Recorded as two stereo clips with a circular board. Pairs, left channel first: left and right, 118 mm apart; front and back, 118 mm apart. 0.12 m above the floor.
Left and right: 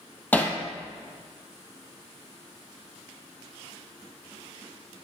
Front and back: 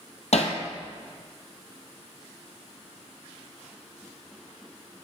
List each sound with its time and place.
0.3 s hammering: 15° left, 1.4 m